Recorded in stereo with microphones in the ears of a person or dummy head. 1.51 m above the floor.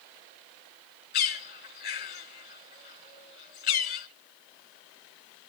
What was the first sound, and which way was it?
A bird, 45° left (ahead or behind).